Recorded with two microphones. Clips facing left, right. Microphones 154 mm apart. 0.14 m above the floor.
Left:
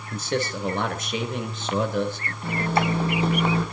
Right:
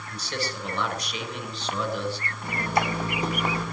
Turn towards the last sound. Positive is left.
turn(degrees=25)  # may be behind; listen again after turning